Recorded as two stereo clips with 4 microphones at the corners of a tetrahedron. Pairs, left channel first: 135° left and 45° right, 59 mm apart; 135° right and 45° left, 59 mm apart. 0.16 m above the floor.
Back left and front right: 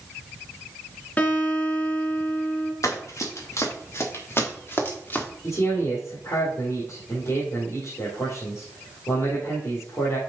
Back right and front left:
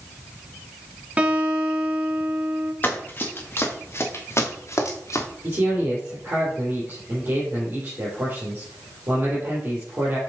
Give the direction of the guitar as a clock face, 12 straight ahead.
9 o'clock.